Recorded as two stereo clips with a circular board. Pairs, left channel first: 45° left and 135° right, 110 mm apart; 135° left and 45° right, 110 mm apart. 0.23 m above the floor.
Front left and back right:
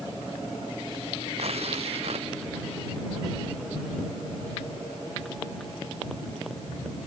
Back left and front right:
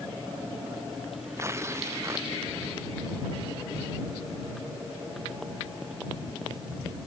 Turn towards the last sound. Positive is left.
turn(degrees=-110)